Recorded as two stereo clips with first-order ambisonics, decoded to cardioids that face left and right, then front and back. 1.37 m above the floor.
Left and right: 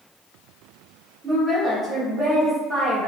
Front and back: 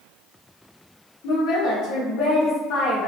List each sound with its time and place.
1.2 s a woman speaking: 10° right, 0.9 m